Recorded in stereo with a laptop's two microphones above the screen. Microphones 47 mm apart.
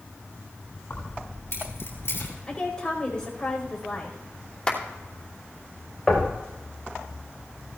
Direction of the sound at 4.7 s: 20° left (ahead or behind).